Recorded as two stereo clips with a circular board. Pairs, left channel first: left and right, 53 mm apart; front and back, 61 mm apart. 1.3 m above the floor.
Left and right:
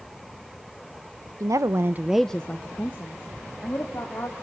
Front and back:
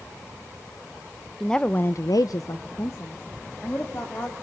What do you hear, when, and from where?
1.4 s a woman speaking: 85° right, 1.1 m; by 4.3 s 50° left, 3.5 m